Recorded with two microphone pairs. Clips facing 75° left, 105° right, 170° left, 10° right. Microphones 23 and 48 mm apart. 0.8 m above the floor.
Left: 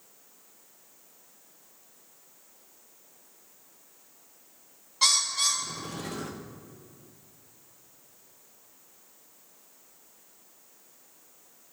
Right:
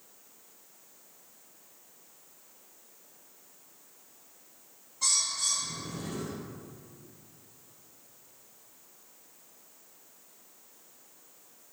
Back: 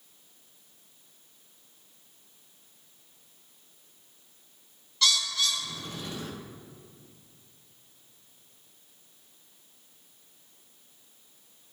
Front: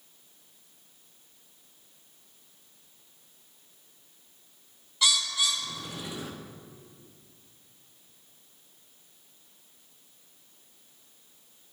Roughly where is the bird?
Left.